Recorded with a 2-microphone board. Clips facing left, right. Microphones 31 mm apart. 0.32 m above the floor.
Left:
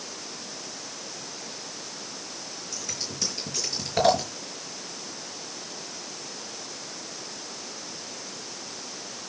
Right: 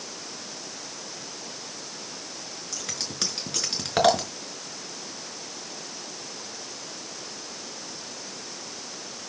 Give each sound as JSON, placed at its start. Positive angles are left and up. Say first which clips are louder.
{"t": 2.7, "sound": "scissors", "louder": "right 2 dB", "side_deg": -70, "distance_m": 5.0}